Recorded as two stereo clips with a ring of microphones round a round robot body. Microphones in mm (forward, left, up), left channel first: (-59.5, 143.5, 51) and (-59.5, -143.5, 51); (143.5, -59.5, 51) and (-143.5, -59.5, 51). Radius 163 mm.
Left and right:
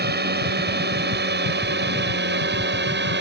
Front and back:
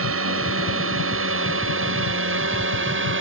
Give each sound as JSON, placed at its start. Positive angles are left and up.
{"t": 0.0, "sound": "a drone", "azimuth_deg": -140}